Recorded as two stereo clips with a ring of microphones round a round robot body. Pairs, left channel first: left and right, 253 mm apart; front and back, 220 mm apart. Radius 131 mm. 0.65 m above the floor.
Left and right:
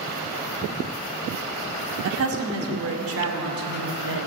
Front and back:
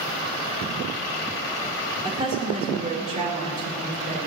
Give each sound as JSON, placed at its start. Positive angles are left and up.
{"t": 2.0, "sound": "a woman speaking", "azimuth_deg": -110, "distance_m": 2.0}